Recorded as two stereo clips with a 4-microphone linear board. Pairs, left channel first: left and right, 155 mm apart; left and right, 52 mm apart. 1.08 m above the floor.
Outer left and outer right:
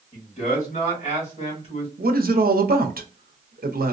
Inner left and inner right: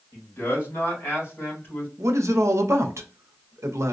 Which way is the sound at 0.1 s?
55° left (ahead or behind).